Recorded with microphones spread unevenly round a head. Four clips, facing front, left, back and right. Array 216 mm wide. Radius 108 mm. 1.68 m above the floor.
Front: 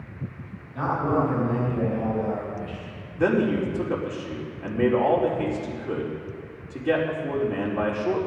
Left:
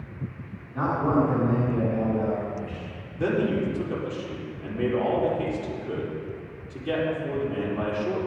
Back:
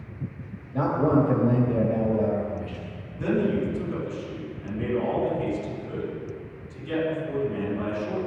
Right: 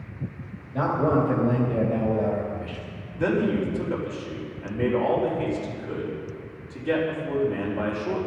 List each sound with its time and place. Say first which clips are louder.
0.7 s a man speaking: right 1 dB, back 2 dB; 150° right, 3 m
3.2 s a man speaking: right 1 dB, front 3 dB; 5° left, 4.5 m